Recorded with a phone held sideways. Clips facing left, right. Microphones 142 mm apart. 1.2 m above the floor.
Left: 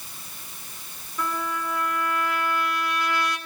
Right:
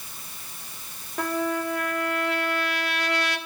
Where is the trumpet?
70° right (ahead or behind), 1.6 m.